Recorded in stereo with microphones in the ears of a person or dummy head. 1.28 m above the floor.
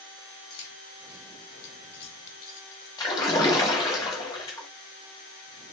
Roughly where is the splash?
Centre.